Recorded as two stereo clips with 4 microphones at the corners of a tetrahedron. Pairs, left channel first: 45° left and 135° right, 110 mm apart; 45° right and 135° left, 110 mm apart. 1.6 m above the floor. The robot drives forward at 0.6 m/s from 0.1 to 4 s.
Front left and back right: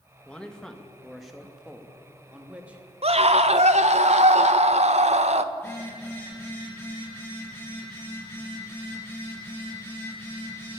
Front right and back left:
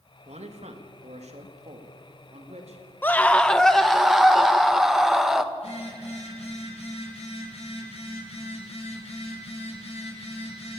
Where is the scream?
115° right, 1.1 m; by 5.4 s 140° right, 1.5 m.